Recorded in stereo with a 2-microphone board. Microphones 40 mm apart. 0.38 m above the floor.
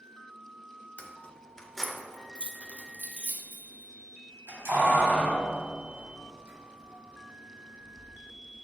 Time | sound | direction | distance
1.0 | keys jangling | 35° left (ahead or behind) | 0.8 m